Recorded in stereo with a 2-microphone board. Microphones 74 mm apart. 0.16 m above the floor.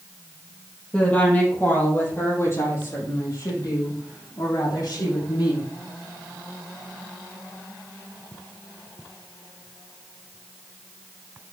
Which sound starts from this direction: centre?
A woman speaking, at 0.9 s.